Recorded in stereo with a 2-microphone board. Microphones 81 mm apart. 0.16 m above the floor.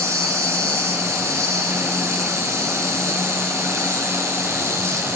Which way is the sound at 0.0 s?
35° right (ahead or behind).